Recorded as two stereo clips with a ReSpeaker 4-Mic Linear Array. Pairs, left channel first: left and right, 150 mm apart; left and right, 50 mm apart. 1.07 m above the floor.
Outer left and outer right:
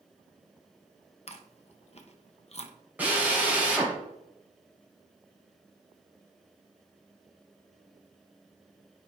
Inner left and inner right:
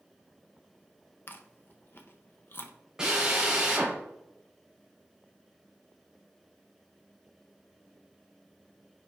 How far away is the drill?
About 2.5 m.